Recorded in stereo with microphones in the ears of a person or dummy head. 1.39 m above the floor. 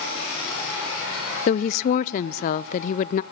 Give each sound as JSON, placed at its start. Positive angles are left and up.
{"t": 1.5, "sound": "a woman speaking", "side_deg": 50, "distance_m": 0.6}